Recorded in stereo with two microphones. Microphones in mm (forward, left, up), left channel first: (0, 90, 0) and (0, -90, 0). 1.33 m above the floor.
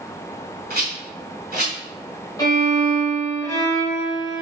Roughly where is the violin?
Left.